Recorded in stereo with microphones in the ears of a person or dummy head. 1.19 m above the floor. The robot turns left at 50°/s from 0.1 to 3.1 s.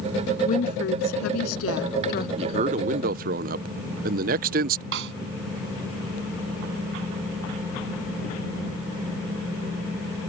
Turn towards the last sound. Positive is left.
turn(degrees=-65)  # may be behind; listen again after turning